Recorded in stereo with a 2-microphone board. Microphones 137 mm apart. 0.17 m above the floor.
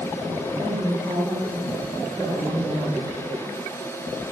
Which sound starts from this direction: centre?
A woman speaking, at 0.6 s.